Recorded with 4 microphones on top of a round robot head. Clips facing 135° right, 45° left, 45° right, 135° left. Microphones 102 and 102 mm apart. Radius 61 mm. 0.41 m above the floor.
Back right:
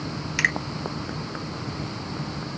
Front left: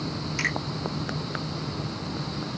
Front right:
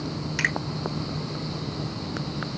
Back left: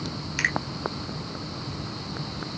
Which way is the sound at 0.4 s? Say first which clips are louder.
Back right 6 dB, even; 135° right.